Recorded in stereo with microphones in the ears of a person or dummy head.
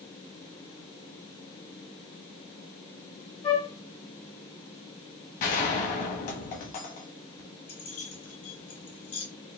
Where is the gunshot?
40° left (ahead or behind), 0.9 m.